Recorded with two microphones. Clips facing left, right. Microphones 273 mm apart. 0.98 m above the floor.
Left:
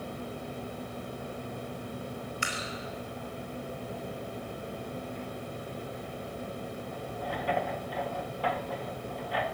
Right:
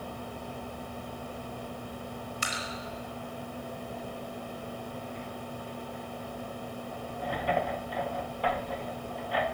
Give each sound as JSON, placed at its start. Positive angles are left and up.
{"t": 2.4, "sound": "dripping", "side_deg": -45, "distance_m": 4.5}